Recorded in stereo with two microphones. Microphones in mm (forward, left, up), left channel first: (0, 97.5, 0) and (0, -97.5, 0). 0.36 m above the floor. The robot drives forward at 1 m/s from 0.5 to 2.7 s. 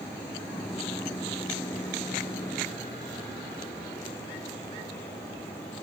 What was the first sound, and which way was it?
Only background noise.